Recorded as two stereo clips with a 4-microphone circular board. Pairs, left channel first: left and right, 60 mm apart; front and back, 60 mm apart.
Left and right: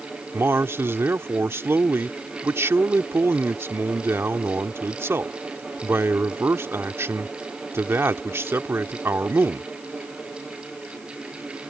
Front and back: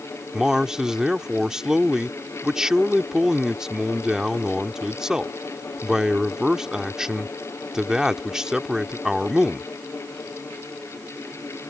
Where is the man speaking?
105° right.